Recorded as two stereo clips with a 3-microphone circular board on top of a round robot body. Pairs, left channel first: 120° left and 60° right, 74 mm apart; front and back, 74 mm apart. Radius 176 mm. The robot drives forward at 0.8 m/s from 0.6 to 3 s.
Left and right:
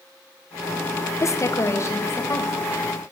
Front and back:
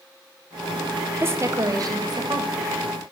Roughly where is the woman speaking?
Behind left.